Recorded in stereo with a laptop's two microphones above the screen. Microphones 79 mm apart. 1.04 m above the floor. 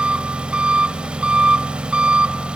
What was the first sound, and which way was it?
An engine running, 10° right (ahead or behind).